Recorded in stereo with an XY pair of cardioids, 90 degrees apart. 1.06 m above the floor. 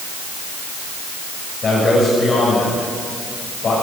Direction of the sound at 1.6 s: 45° left.